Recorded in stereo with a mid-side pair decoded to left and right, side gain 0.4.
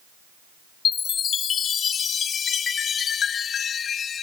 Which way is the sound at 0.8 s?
60° left.